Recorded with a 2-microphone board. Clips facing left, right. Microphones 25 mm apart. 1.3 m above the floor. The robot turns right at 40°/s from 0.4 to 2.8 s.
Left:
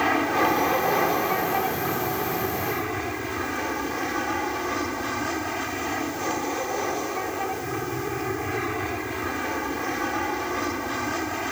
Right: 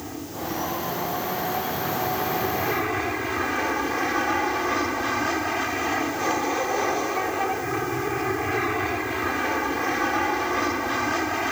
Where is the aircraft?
100° left; by 11.5 s 165° right.